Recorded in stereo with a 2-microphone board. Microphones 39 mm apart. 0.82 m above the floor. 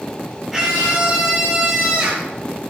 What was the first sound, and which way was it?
A scream, 5° right (ahead or behind).